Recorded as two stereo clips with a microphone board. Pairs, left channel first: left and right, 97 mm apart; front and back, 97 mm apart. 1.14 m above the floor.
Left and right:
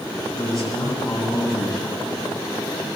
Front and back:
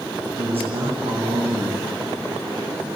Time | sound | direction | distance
0.3 | a man speaking | straight behind | 8 m